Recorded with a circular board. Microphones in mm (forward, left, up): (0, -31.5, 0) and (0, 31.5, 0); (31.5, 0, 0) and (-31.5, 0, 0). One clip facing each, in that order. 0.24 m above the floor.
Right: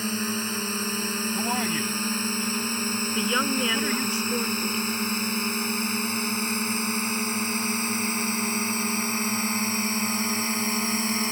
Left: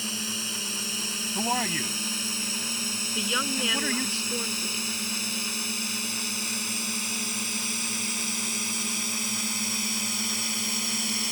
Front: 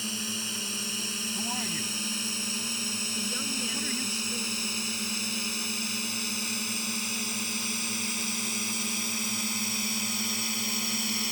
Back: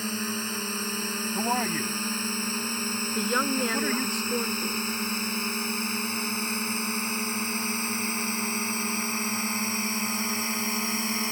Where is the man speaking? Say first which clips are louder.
Left 2 dB, back 9 dB; 165° left.